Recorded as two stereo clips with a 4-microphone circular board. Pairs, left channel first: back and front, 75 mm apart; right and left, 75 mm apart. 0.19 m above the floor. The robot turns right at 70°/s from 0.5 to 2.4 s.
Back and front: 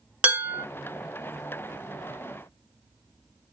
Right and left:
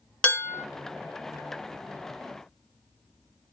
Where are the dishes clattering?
40° right, 0.7 m; by 0.7 s 30° right, 0.7 m.